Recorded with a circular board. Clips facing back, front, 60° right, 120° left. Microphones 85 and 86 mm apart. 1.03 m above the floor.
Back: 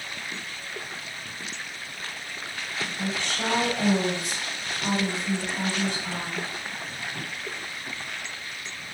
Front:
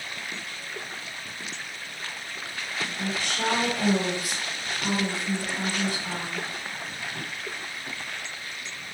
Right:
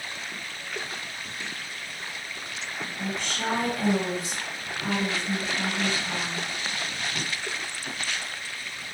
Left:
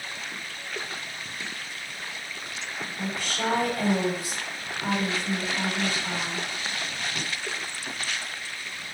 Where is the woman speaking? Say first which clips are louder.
Front 1 dB, left 2 dB; 80° left, 2.5 m.